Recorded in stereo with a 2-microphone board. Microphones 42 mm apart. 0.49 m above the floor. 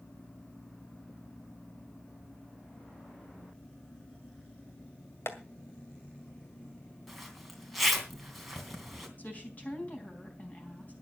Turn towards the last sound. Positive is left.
turn(degrees=35)  # may be behind; listen again after turning